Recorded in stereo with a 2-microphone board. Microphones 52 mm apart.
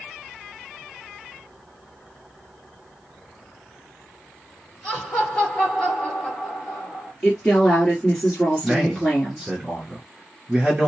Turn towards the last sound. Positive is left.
turn(degrees=-15)  # may be behind; listen again after turning